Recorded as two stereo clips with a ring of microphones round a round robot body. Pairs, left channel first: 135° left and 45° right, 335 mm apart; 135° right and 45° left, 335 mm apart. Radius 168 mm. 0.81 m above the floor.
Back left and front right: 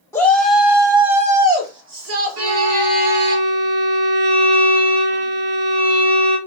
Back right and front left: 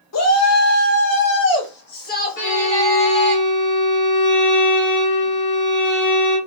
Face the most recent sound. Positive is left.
turn(degrees=-80)